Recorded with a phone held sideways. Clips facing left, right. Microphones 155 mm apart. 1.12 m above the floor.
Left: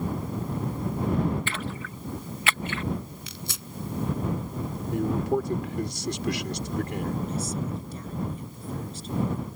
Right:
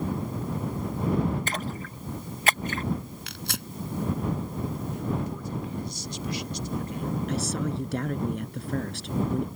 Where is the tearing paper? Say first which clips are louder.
Right 3 dB; 70° right (ahead or behind).